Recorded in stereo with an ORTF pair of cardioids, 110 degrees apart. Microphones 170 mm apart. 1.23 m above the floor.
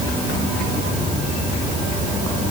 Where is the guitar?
No guitar in this recording.